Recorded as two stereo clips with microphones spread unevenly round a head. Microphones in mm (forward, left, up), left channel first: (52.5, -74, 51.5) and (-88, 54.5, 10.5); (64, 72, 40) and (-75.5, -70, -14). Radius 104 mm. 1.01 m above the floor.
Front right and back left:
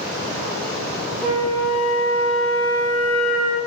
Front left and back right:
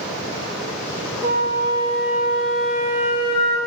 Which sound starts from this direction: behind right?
A flute, at 1.2 s.